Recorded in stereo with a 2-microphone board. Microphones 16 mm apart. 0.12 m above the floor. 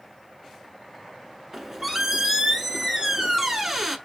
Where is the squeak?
25° right (ahead or behind), 0.8 m.